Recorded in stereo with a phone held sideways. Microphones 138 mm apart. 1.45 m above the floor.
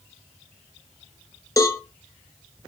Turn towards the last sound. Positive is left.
turn(degrees=25)  # may be behind; listen again after turning